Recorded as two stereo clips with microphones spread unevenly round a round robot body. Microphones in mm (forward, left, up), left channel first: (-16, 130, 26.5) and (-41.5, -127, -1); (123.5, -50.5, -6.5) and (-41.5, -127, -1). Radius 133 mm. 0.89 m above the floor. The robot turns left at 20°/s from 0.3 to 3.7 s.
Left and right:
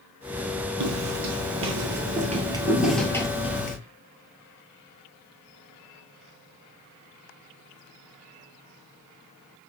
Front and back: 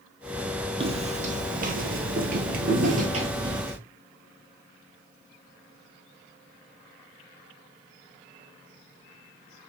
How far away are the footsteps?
About 1.7 m.